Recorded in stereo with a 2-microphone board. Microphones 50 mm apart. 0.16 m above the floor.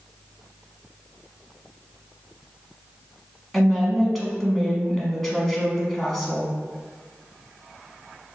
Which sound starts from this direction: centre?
A woman speaking, at 3.5 s.